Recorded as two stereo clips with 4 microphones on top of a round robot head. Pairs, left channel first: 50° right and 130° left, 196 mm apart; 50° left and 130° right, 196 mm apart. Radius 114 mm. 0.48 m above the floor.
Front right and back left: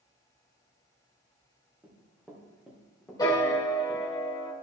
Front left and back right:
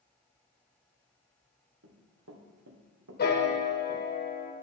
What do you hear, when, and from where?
1.8 s running footsteps: 150° right, 2.5 m; by 4.1 s 115° right, 1.6 m
3.2 s a piano: 20° left, 1.6 m